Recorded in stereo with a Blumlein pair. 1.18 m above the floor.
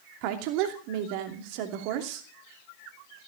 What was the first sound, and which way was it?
A woman speaking, 45° right.